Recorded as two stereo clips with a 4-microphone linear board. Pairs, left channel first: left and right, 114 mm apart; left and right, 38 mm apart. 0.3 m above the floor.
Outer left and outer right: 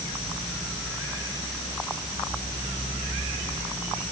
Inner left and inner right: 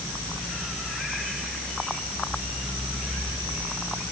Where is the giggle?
No giggle in this recording.